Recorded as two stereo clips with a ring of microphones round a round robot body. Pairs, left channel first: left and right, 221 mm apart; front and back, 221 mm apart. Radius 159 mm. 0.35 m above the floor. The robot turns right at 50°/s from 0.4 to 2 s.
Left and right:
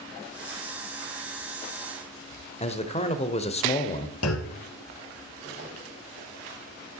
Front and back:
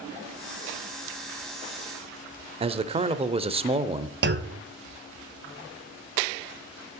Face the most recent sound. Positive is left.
turn(degrees=135)